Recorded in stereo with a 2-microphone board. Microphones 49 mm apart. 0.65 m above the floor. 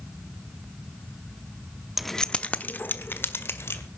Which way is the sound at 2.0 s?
5° right (ahead or behind).